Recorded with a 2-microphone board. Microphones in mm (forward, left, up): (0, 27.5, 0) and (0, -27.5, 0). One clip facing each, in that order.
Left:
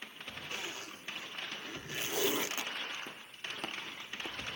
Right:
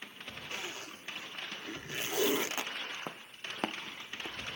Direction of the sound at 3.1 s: 50° right (ahead or behind).